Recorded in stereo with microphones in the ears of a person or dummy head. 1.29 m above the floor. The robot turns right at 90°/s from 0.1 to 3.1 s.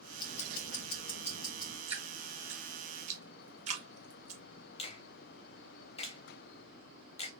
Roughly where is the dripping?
Right.